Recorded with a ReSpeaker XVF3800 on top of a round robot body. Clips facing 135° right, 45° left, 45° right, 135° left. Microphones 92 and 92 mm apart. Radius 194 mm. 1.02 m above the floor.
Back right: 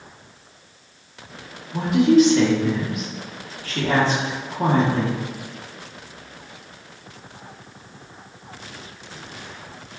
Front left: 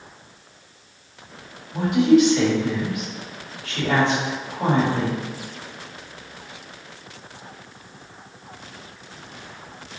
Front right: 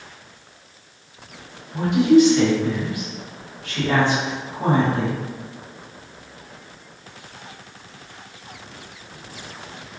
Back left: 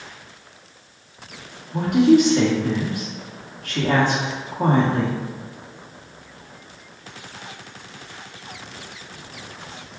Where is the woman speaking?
175° left, 1.1 m.